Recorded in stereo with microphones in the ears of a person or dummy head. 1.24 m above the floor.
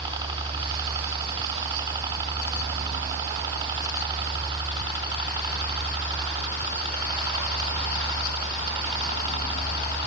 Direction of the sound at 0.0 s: 25° right (ahead or behind).